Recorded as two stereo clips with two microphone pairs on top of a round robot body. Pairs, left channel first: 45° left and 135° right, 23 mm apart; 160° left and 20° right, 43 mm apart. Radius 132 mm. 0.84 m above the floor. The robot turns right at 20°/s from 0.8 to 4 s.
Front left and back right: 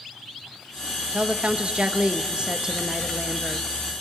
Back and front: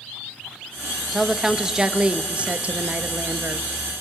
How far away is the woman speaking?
About 1.2 m.